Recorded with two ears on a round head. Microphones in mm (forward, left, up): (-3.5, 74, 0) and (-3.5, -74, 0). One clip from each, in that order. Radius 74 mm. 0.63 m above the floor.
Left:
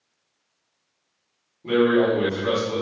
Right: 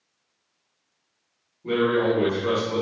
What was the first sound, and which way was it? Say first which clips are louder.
A man speaking: left 3 dB; 65° left (ahead or behind).